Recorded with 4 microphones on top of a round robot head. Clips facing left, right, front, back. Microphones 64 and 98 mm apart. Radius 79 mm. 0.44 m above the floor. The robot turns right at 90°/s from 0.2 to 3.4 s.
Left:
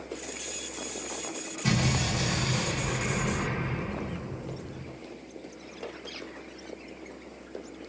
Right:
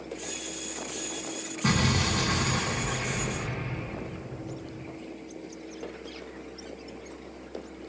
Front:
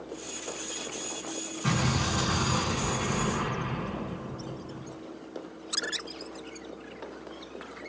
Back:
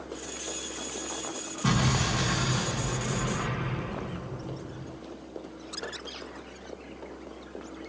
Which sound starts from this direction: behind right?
An explosion, at 1.6 s.